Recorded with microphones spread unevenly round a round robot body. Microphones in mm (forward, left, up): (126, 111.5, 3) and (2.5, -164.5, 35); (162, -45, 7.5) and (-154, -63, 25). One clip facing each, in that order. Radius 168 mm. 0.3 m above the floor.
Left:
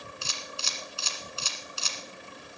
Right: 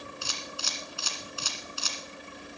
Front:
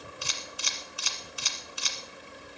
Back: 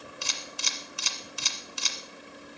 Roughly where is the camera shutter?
Behind left.